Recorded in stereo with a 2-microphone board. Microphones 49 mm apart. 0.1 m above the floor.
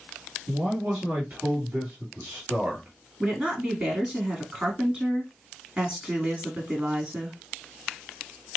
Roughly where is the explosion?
I don't hear an explosion.